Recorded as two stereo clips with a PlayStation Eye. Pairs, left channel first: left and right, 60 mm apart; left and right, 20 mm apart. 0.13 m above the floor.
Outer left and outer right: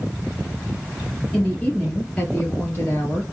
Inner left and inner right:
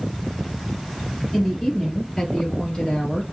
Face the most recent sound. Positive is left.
turn(degrees=35)  # may be behind; listen again after turning